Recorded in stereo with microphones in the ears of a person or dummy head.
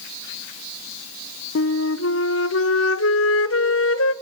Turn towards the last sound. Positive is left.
turn(degrees=70)  # may be behind; listen again after turning